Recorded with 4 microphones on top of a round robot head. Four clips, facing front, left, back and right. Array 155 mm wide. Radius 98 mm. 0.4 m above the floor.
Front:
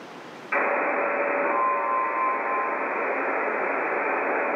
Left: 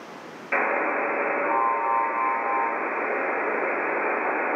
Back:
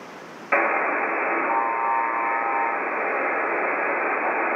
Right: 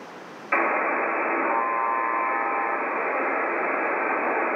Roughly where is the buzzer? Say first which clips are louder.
Right 1 dB, back 2 dB; behind.